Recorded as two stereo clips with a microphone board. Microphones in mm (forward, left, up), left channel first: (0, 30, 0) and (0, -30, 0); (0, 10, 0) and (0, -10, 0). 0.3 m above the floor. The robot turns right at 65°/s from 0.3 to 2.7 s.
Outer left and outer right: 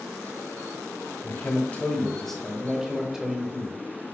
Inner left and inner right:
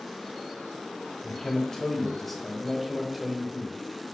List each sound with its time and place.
1.2 s a man speaking: 30° left (ahead or behind), 0.9 m; by 3.8 s 5° right (ahead or behind), 0.9 m